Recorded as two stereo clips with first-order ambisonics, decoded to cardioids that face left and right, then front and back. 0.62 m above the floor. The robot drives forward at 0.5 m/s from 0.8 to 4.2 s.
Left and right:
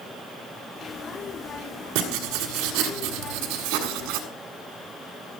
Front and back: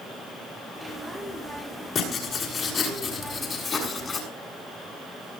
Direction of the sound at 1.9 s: 65° right.